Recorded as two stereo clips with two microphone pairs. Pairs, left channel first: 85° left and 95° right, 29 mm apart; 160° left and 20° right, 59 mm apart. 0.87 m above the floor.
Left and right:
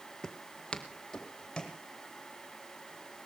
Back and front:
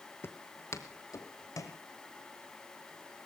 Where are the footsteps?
145° left, 1.1 m; by 1.8 s 140° left, 3 m.